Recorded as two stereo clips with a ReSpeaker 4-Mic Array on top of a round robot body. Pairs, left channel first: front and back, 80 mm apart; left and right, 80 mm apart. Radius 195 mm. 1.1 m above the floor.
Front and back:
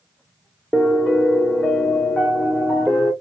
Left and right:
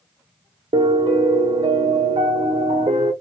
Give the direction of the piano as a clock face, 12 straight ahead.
3 o'clock.